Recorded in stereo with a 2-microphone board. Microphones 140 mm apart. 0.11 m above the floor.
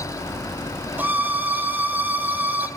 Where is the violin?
10° right (ahead or behind), 1.5 m.